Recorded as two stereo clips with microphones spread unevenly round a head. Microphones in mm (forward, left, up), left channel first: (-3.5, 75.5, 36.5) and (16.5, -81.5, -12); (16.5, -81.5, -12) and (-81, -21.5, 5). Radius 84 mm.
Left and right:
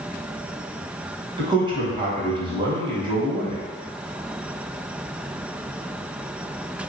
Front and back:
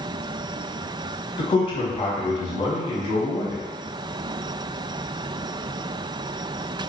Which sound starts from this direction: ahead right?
A man speaking, at 1.4 s.